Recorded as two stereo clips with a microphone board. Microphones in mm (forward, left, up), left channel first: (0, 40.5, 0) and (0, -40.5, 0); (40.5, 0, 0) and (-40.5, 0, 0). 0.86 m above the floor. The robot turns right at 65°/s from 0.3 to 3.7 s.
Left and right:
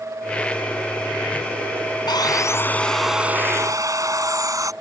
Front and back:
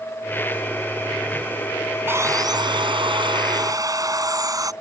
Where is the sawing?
115° left; by 4.7 s 135° right.